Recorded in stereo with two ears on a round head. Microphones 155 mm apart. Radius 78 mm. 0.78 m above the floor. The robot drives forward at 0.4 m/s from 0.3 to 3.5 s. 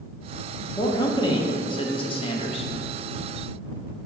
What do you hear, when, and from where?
0.8 s a man speaking: 20° left (ahead or behind), 1.1 m; by 2.7 s 35° left (ahead or behind), 0.7 m